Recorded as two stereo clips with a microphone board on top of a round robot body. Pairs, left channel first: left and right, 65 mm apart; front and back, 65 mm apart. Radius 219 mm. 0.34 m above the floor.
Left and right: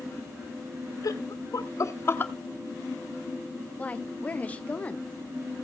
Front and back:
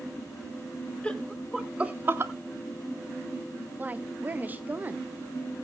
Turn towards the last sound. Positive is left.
turn(degrees=140)